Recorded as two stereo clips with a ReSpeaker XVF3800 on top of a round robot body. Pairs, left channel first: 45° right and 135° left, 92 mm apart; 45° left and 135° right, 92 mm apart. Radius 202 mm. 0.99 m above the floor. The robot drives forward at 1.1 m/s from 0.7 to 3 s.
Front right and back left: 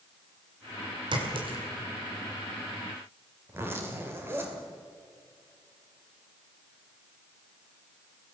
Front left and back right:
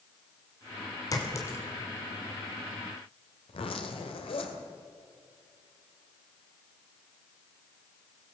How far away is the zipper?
About 2 m.